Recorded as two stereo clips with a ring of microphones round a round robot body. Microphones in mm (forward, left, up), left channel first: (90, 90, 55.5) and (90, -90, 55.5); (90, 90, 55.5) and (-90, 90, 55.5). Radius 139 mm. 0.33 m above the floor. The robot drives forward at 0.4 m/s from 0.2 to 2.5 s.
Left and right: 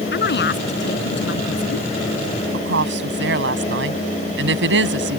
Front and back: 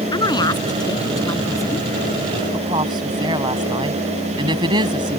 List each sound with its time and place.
0.1 s a woman speaking: 65° left; by 1.9 s 75° left
2.5 s a woman speaking: 110° right